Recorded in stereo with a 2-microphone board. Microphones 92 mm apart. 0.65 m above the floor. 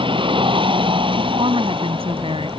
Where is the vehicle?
65° right (ahead or behind).